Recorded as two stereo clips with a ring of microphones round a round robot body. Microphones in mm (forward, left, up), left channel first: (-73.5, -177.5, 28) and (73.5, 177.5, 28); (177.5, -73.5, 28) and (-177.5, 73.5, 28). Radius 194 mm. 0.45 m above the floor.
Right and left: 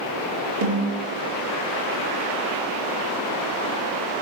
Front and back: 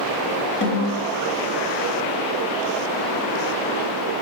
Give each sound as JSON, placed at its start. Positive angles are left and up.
{"t": 0.6, "sound": "a snare drum", "azimuth_deg": 40, "distance_m": 3.0}